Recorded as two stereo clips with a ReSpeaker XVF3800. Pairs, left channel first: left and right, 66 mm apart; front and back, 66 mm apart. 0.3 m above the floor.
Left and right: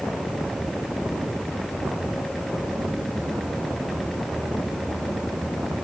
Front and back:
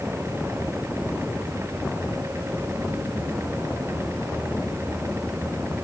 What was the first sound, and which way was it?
Only background noise.